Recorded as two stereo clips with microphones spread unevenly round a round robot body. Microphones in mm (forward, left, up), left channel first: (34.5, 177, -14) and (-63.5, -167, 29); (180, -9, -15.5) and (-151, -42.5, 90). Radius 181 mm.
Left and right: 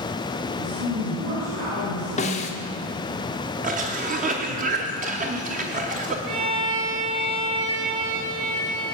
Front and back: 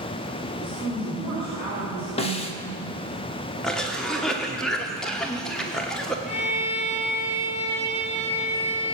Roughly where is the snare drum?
Ahead left.